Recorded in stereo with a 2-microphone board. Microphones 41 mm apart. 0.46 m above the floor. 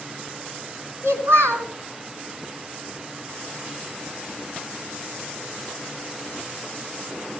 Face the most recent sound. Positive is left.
turn(degrees=-80)